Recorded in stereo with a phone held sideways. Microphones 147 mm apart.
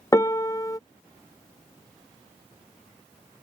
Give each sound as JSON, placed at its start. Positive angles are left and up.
{"t": 0.1, "sound": "a piano", "side_deg": 25}